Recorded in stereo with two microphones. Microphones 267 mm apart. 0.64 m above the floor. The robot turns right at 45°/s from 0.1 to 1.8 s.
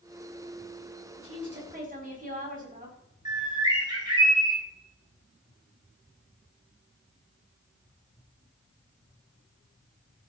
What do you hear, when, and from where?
1.2 s a woman speaking: 60° right (ahead or behind), 4.5 m; by 3.0 s 30° right (ahead or behind), 4.5 m
3.2 s a bird: 15° right (ahead or behind), 4 m